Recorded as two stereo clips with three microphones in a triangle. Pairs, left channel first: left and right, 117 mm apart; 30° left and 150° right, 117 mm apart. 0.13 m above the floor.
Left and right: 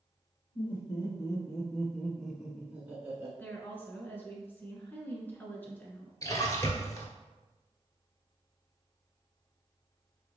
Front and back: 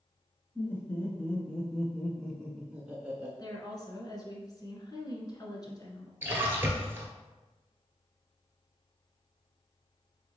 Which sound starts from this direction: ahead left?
A woman speaking, at 3.4 s.